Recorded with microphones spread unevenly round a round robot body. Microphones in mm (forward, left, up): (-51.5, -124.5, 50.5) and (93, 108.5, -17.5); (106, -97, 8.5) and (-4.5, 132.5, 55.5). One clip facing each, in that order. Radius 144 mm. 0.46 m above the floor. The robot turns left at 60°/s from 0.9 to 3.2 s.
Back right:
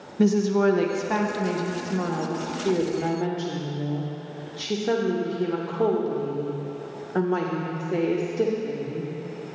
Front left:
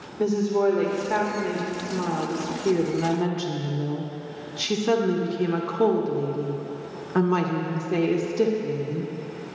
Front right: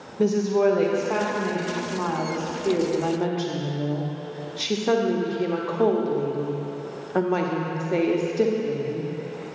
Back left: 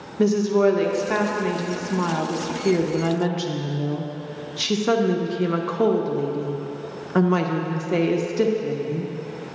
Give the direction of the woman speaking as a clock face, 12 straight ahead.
6 o'clock.